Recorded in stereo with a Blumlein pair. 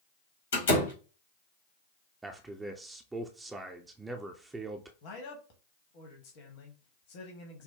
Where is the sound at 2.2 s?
10° right, 0.6 m.